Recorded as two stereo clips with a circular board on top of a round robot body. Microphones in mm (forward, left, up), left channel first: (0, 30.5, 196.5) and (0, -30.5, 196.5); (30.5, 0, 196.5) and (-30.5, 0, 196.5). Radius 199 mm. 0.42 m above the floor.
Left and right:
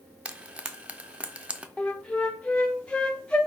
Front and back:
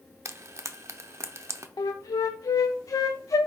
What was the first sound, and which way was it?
Frying, 155° right.